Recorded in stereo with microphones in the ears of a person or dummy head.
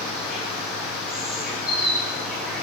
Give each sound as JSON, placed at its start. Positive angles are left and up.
{"t": 0.0, "sound": "an insect", "side_deg": -5, "distance_m": 5.5}